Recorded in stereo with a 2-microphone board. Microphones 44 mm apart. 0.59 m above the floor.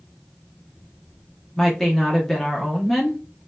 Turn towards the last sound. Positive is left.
turn(degrees=5)  # may be behind; listen again after turning